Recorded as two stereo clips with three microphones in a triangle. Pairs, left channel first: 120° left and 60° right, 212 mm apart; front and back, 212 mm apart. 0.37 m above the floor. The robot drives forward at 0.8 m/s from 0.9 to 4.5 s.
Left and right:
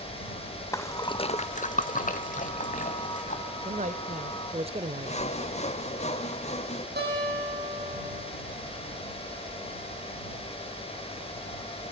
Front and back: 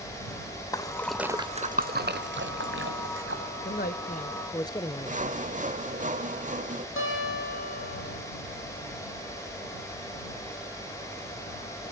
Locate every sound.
0.7 s a splash: 55° left, 0.6 m; by 3.4 s 170° left, 1.9 m
3.6 s a man speaking: 15° right, 1.2 m; by 5.2 s 45° right, 0.8 m
5.1 s sawing: 155° left, 1.1 m
7.0 s a guitar: 20° right, 7.5 m